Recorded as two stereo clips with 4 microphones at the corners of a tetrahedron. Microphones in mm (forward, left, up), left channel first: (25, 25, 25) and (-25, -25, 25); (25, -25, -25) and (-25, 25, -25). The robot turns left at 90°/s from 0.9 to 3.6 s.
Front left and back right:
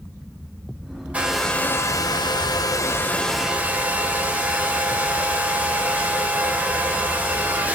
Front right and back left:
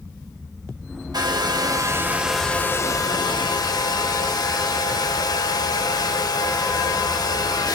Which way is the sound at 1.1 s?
155° left.